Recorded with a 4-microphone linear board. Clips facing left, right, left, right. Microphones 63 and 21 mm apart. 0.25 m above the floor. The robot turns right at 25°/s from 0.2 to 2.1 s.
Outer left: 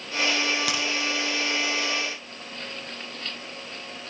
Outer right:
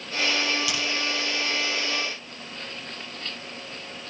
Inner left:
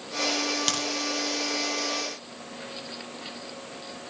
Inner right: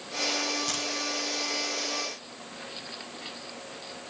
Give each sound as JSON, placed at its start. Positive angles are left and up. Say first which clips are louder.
{"t": 0.7, "sound": "a crack", "louder": "outer left 1 dB, inner left 4 dB", "side_deg": 65, "distance_m": 3.5}